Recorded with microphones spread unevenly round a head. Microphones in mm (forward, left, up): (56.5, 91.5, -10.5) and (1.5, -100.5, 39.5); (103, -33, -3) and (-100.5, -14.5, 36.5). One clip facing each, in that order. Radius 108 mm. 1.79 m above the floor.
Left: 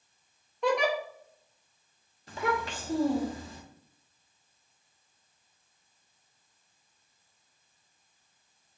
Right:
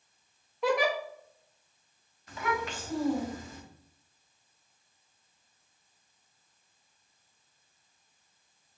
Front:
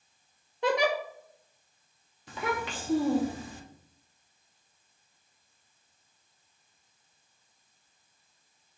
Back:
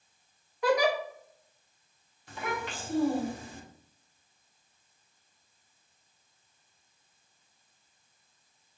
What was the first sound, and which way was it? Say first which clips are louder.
A giggle: even, back 1 dB; 60° right.